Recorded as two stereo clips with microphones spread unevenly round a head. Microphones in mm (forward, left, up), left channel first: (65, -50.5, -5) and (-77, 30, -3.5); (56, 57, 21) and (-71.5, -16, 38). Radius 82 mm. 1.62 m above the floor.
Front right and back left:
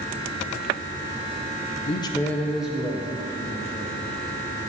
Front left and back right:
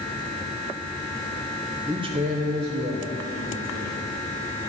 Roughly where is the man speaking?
Right.